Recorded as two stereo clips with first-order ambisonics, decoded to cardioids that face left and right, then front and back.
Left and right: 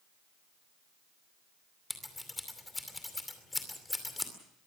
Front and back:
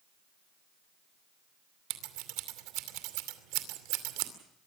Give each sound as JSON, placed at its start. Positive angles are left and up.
{"t": 1.9, "sound": "scissors", "azimuth_deg": 170, "distance_m": 2.5}